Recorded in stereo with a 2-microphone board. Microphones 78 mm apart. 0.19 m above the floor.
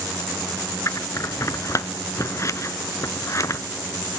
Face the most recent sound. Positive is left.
turn(degrees=45)  # may be behind; listen again after turning